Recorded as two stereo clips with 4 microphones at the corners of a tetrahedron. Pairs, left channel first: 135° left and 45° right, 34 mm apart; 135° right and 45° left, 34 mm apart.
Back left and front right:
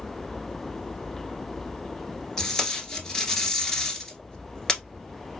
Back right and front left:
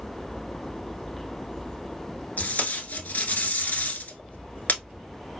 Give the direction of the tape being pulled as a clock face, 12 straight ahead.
5 o'clock.